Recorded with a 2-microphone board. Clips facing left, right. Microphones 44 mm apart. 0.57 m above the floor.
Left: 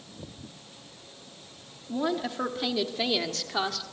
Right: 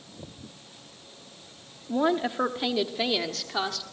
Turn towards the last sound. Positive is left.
turn(degrees=5)  # may be behind; listen again after turning